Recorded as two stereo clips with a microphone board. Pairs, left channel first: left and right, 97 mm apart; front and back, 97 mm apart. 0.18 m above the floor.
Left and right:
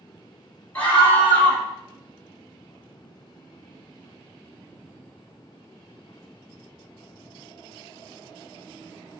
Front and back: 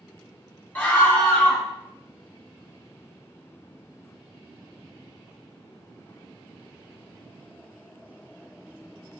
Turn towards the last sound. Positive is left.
turn(degrees=45)